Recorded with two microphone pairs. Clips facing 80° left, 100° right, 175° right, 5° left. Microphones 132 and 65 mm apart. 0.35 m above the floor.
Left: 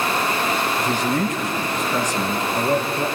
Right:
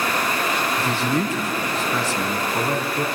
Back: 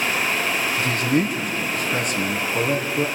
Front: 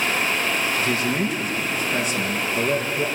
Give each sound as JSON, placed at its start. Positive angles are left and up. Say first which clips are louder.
{"t": 0.8, "sound": "a man speaking", "louder": "left 1 dB, back 2 dB", "azimuth_deg": -155, "distance_m": 3.5}